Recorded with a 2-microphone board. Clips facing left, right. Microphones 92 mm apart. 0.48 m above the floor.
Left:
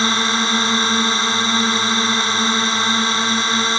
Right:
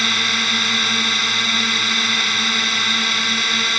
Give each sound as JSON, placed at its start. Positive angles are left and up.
{"t": 0.0, "sound": "a drone", "side_deg": 30}